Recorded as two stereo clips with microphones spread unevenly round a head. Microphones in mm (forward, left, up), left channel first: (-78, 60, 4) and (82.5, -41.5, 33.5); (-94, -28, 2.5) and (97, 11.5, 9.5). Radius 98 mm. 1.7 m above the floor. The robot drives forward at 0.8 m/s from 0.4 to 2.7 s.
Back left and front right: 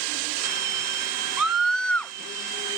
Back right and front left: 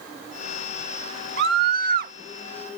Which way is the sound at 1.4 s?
50° left.